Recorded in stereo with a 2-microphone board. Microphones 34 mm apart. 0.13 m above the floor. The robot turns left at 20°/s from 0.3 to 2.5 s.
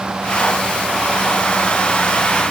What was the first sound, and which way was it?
Only background noise.